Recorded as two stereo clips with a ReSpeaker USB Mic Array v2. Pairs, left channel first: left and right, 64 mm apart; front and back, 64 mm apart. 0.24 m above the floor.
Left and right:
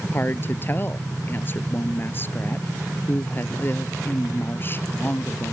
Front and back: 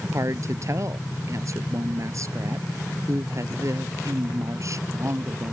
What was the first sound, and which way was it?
A woman speaking, 145° left.